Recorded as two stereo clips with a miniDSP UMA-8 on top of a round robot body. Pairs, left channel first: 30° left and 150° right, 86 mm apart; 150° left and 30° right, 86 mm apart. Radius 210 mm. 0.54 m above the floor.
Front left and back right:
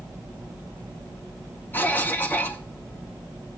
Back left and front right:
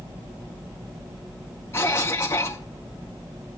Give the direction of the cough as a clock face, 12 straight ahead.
9 o'clock.